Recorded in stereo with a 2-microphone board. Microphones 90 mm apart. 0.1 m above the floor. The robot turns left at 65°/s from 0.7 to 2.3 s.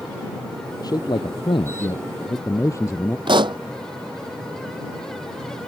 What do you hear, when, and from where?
0.8 s a man speaking: 130° left; by 3.2 s 35° left
3.3 s a pop: 60° right (ahead or behind)